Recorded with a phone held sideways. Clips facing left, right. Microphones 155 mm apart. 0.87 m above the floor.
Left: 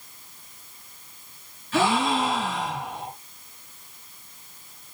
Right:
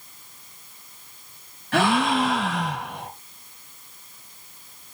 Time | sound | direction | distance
1.7 | a gasp | 70° right (ahead or behind) | 3 m